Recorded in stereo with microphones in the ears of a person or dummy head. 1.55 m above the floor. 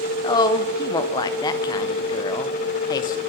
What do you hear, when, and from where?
0.2 s a woman speaking: 25° left (ahead or behind), 0.5 m